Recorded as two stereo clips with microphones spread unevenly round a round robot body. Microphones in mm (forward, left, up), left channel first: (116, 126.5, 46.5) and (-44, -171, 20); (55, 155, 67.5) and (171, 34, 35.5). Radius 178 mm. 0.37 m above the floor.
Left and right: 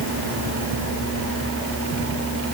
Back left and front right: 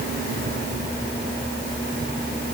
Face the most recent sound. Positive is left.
No sound to turn to.